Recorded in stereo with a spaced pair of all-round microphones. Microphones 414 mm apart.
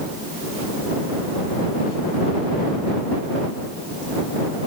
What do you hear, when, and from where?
Only background noise.